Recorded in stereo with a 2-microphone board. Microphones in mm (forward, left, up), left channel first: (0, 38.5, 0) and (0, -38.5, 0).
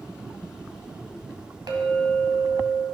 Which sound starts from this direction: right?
A clink, at 1.7 s.